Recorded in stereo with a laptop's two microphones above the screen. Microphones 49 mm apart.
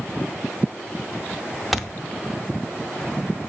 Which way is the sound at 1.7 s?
Centre (ahead or behind).